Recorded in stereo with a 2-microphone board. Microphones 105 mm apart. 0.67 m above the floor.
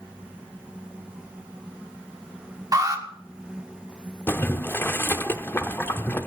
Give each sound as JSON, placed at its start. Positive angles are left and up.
{"t": 2.7, "sound": "an alarm", "side_deg": -35, "distance_m": 1.4}
{"t": 4.3, "sound": "boiling", "side_deg": 20, "distance_m": 0.7}